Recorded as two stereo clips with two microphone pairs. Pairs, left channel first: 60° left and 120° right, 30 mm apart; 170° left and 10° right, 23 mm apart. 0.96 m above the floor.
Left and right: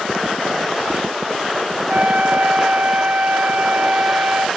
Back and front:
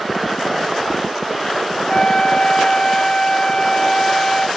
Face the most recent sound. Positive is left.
turn(degrees=-135)